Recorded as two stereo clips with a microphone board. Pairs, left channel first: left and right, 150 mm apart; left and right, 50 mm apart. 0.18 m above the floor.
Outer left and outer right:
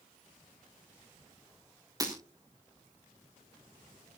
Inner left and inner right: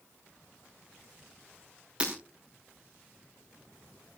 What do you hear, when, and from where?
2.0 s breaking glass: 25° right (ahead or behind), 3.5 m